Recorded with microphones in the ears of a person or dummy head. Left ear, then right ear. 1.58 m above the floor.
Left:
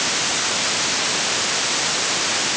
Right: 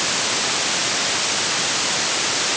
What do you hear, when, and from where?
Only background noise.